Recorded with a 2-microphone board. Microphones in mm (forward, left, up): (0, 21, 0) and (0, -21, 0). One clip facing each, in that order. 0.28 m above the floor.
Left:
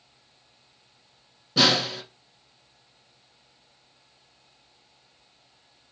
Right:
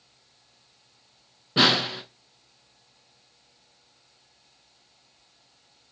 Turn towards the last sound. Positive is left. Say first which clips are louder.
# right 1 dB
turn(degrees=-25)  # may be behind; listen again after turning